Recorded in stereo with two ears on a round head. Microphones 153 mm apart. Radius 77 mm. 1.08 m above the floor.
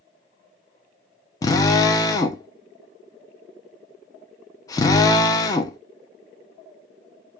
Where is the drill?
20° left (ahead or behind), 0.7 m.